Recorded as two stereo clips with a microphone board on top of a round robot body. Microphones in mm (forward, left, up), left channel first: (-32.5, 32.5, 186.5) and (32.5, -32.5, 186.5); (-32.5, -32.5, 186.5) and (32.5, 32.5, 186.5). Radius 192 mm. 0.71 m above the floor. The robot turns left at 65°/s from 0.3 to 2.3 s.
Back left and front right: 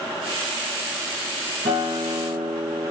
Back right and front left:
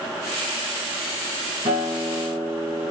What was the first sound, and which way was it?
A guitar, 15° right.